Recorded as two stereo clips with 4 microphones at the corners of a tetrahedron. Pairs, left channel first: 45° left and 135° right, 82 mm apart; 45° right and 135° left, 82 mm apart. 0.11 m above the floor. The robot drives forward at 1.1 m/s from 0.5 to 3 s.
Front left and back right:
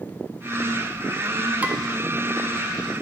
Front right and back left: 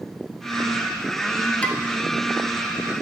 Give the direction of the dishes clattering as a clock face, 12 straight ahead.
3 o'clock.